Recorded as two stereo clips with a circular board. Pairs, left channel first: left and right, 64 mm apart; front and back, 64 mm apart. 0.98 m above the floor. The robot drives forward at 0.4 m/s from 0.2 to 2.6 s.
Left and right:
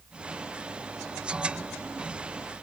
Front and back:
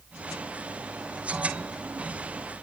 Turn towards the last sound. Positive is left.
No sound to turn to.